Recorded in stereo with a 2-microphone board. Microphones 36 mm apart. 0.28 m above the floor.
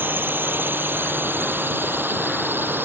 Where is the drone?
75° right (ahead or behind); by 2.9 s 80° right.